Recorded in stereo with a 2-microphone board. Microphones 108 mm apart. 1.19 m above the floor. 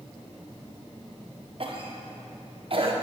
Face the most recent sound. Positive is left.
turn(degrees=-50)  # may be behind; listen again after turning